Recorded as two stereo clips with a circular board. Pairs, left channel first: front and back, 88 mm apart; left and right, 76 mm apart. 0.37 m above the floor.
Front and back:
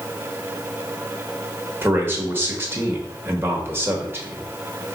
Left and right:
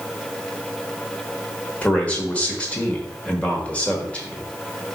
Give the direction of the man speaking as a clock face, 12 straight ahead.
7 o'clock.